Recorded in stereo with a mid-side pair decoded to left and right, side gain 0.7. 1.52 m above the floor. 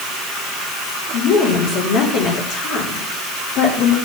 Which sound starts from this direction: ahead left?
A woman speaking, at 1.1 s.